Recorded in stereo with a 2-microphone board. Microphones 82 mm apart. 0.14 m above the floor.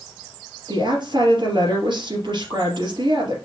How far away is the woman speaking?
About 3.5 m.